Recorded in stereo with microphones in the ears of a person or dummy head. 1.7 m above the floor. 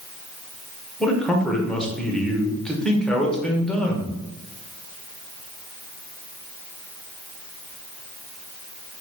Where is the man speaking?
Centre (ahead or behind), 0.7 m.